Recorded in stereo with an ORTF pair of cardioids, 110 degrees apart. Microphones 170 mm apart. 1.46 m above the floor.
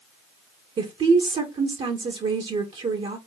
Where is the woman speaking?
35° right, 2 m.